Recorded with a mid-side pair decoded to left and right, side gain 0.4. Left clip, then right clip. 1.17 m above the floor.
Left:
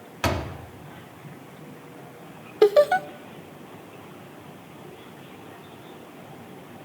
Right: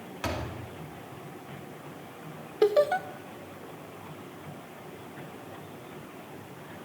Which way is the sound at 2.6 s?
45° left.